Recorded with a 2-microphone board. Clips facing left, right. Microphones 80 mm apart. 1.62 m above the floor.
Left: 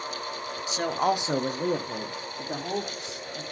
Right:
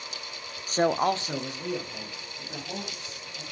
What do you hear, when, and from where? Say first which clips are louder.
0.7 s a man speaking: right 2 dB; 45° right (ahead or behind), 0.6 m; by 3.4 s 70° left (ahead or behind), 3 m